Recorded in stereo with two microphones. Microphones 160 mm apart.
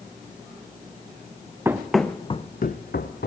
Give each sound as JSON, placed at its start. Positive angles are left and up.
{"t": 1.6, "sound": "running footsteps", "side_deg": -15, "distance_m": 1.1}